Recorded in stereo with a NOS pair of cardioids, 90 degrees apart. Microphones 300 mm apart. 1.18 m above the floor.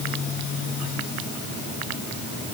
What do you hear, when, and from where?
Only background noise.